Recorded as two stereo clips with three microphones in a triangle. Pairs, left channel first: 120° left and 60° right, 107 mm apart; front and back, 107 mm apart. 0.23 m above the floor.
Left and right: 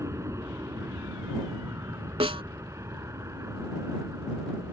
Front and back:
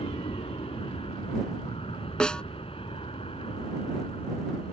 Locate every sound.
0.0 s an aircraft: 5° right
2.2 s a snare drum: 80° right